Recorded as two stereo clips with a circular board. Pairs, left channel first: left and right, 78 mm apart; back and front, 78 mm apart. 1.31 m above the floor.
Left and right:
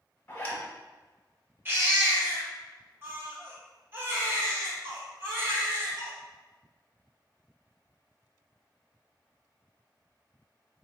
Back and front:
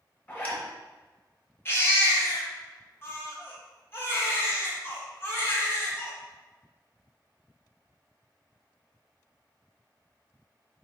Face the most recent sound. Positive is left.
turn(degrees=-135)